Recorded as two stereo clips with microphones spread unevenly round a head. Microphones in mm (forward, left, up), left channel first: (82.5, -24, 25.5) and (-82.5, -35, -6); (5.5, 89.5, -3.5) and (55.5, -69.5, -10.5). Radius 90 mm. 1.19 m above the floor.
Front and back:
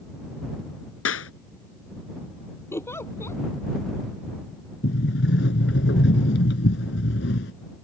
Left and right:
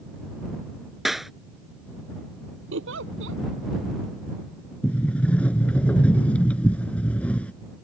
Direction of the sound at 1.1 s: 15° left.